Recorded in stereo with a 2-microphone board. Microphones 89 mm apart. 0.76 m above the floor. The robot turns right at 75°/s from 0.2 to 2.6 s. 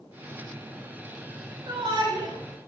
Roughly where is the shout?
Right.